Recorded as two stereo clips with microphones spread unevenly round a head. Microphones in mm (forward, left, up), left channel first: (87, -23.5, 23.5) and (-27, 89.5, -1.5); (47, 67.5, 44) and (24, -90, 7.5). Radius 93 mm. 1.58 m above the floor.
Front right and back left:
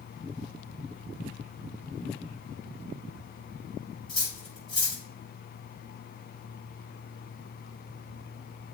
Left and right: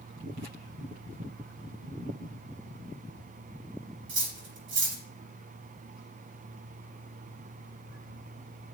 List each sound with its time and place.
4.1 s cutlery clinking: 130° right, 2.5 m